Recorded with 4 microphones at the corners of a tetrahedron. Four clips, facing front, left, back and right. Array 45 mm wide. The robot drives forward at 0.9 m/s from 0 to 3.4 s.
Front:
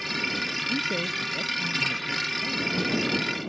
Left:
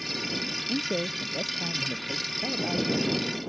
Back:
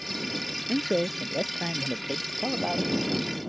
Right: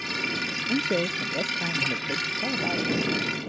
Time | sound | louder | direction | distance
0.7 | a man speaking | right 4 dB, back 5 dB | 145° right | ?